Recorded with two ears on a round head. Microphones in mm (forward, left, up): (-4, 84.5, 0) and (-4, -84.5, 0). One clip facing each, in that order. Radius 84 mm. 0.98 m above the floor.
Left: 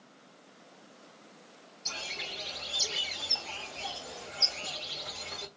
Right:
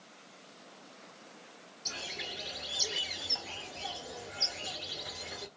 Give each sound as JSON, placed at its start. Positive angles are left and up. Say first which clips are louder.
{"t": 1.9, "sound": "a bird", "louder": "even", "side_deg": -15, "distance_m": 0.7}